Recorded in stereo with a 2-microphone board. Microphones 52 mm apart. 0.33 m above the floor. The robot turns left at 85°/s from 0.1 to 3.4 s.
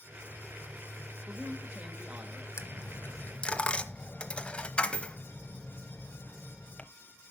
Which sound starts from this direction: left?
A dropped coin, at 2.6 s.